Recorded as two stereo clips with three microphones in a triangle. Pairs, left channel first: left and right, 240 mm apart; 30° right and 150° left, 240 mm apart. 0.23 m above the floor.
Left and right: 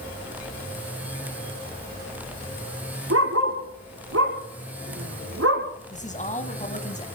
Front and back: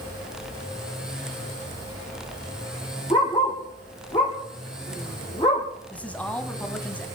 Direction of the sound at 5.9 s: 50° left.